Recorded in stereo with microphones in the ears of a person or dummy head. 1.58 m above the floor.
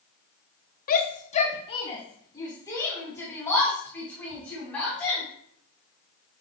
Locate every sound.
0.9 s a shout: 50° left (ahead or behind), 1.0 m; by 5.2 s 10° left (ahead or behind), 4 m